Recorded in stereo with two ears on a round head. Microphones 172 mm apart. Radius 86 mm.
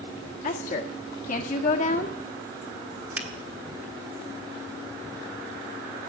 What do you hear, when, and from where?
0.4 s a woman speaking: 45° left (ahead or behind), 1.7 m
3.2 s a finger snap: 10° right (ahead or behind), 1.3 m